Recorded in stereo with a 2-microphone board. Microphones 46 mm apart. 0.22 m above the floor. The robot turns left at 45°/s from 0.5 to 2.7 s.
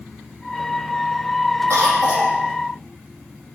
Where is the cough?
100° right, 6 m; by 2.4 s 130° right, 6 m.